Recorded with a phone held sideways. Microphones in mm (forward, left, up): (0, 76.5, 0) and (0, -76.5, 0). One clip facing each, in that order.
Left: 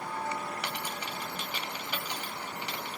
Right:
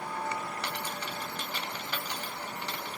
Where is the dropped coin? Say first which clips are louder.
Right 1 dB; 10° left (ahead or behind), 1.4 m.